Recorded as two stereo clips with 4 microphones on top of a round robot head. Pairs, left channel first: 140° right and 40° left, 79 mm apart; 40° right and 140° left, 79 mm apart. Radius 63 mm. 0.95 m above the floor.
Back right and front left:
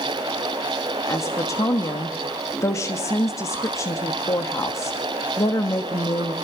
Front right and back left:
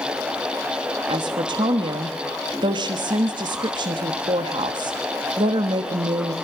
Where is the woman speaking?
165° left, 1.3 m.